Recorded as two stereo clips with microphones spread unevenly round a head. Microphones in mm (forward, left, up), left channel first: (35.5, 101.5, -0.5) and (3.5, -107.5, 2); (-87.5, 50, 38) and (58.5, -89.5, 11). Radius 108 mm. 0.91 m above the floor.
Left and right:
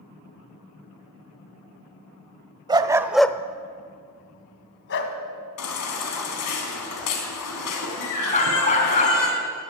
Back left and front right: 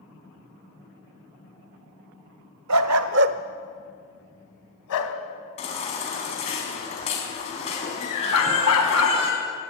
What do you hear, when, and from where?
2.7 s a dog barking: 30° right, 1.4 m; by 5.2 s 120° left, 2.5 m
5.6 s a baby crying: 75° left, 4 m
8.3 s a dog barking: 140° left, 3 m